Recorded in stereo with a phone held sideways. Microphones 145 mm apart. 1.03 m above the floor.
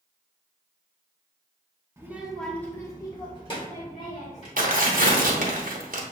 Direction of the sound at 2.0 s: 20° right (ahead or behind).